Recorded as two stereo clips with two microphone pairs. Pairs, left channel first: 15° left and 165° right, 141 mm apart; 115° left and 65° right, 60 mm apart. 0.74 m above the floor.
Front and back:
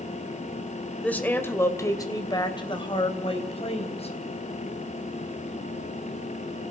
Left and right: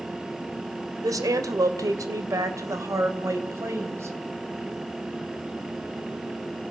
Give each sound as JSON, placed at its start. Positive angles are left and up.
{"t": 1.0, "sound": "a woman speaking", "azimuth_deg": -65, "distance_m": 3.0}